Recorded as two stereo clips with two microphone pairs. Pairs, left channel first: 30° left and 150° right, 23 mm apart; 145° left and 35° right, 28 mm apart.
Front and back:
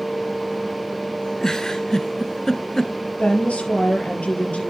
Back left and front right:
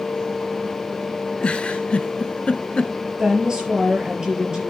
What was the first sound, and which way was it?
A giggle, 100° left.